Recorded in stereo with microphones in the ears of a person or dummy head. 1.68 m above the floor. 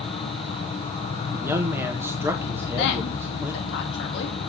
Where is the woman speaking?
65° left (ahead or behind), 3 m.